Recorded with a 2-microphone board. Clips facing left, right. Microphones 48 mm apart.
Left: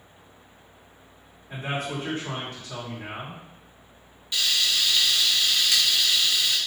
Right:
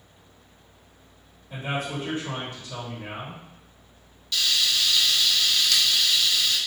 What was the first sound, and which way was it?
A man speaking, 60° left (ahead or behind).